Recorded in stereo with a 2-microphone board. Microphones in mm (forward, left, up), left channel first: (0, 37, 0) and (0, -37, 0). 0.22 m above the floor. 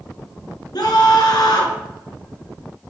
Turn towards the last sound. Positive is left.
turn(degrees=65)  # may be behind; listen again after turning